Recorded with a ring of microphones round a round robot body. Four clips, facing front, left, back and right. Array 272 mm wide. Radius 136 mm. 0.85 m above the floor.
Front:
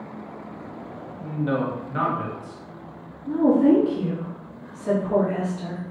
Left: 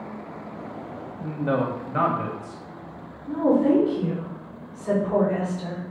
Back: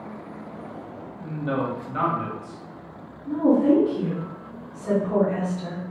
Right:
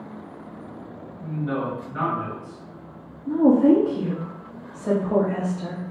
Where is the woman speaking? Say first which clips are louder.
Right 4 dB, front 1 dB; 75° right, 1.4 m.